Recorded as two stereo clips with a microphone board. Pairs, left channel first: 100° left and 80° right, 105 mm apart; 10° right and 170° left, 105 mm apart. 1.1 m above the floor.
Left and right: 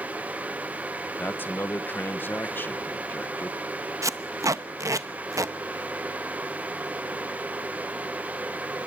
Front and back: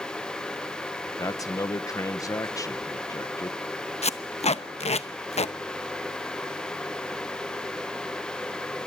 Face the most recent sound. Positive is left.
turn(degrees=-15)